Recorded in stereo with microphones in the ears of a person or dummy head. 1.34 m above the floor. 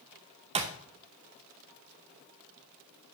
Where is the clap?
30° right (ahead or behind), 0.9 m.